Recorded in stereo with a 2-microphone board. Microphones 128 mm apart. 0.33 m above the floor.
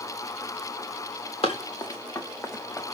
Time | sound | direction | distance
1.4 | running footsteps | 45° left (ahead or behind) | 1.6 m